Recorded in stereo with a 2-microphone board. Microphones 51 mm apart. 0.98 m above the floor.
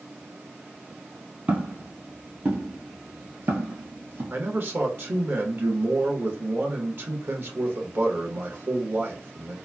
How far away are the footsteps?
About 1.5 m.